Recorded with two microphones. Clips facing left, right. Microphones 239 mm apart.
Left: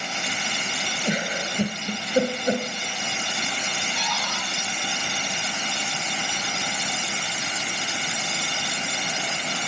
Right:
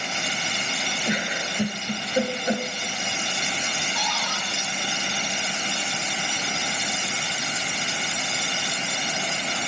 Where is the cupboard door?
60° left (ahead or behind), 3.5 m.